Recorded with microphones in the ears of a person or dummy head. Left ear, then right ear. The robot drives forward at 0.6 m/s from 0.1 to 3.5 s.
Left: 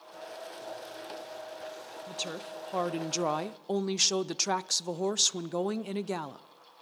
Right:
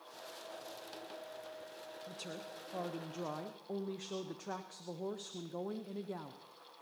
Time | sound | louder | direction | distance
2.1 | a woman speaking | left 11 dB | 35° left (ahead or behind) | 0.9 m